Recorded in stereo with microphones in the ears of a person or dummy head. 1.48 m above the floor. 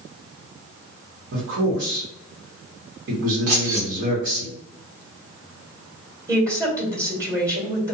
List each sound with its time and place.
1.3 s a man speaking: 75° right (ahead or behind), 1.1 m
3.5 s keys jangling: 50° right (ahead or behind), 0.8 m
6.3 s a woman speaking: 20° right (ahead or behind), 1.2 m